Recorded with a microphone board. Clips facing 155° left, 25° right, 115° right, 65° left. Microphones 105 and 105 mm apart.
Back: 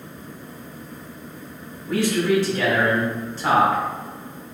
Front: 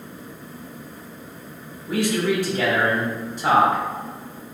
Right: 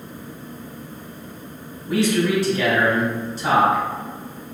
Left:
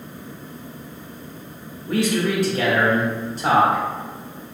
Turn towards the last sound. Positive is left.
turn(degrees=50)